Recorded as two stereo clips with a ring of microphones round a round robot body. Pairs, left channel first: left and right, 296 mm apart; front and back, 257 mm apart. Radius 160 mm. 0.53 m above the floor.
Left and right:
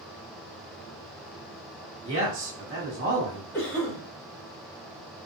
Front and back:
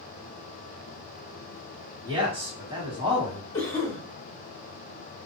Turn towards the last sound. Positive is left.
turn(degrees=25)